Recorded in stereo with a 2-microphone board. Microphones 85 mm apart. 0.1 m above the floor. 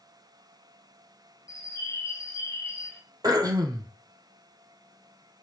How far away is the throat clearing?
About 0.5 m.